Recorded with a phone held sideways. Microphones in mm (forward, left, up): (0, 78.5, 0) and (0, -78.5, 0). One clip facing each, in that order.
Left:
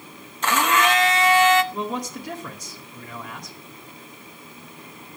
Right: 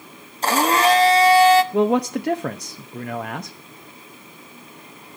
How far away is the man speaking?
About 0.7 m.